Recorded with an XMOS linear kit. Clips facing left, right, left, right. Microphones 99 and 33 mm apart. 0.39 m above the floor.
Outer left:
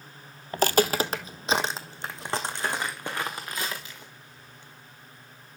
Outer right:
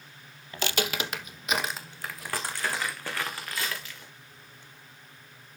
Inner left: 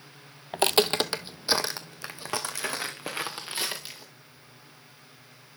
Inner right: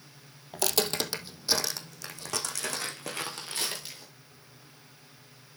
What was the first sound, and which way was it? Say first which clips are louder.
Footsteps: outer left 8 dB, inner left 6 dB; 45° left (ahead or behind).